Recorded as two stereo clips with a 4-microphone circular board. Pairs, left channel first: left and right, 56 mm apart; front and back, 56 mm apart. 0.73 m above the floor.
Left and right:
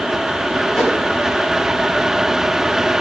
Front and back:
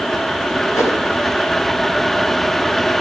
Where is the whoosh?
Straight ahead, 4.5 m.